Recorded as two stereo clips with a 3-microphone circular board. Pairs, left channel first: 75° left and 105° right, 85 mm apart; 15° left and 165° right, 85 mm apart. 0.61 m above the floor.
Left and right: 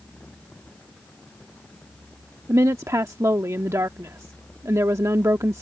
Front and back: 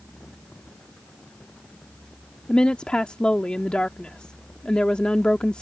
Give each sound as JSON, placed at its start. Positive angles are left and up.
{"t": 2.5, "sound": "a woman speaking", "azimuth_deg": -60}